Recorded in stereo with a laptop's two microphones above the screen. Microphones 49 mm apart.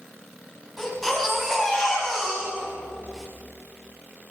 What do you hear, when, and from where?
0.8 s a baby crying: 5° left (ahead or behind), 6 m